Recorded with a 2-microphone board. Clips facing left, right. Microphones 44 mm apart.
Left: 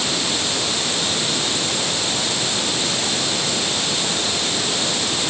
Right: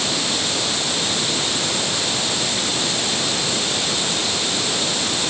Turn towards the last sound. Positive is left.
No sound to turn to.